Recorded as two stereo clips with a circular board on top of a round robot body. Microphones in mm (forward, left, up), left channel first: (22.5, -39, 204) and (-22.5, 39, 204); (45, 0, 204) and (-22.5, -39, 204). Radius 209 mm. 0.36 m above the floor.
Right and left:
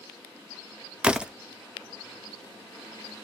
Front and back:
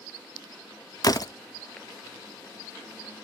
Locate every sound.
1.0 s a door slam: 45° left, 1.0 m